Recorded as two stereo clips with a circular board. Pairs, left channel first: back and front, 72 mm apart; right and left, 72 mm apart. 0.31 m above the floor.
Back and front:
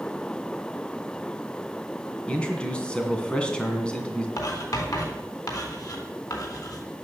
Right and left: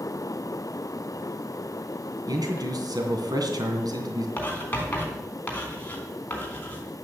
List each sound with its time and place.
2.3 s a man speaking: 105° left, 2.5 m
4.4 s writing: 155° right, 3.5 m